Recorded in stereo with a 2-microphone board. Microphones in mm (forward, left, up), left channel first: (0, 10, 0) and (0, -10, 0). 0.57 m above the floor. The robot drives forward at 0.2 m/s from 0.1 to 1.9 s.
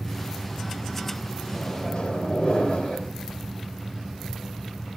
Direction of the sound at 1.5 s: 55° left (ahead or behind).